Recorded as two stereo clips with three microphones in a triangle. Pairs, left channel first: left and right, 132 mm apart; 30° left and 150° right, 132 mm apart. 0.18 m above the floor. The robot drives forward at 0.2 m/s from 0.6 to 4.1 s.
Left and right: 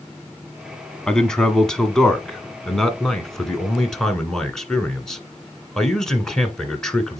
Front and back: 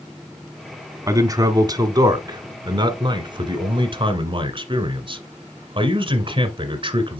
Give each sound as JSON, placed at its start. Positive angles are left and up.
{"t": 1.1, "sound": "a man speaking", "azimuth_deg": 170, "distance_m": 1.2}